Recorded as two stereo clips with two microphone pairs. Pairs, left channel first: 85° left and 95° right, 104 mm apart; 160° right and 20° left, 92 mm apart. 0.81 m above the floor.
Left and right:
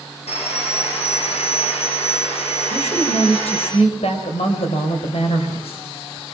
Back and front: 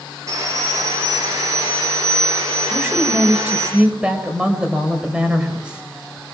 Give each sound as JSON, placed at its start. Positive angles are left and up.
{"t": 0.3, "sound": "sawing", "azimuth_deg": 75, "distance_m": 10.0}
{"t": 2.7, "sound": "a woman speaking", "azimuth_deg": 95, "distance_m": 4.5}